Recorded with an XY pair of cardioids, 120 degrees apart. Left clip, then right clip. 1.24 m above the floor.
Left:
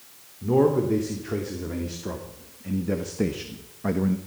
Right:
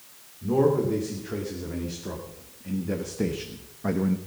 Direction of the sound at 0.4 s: 25° left.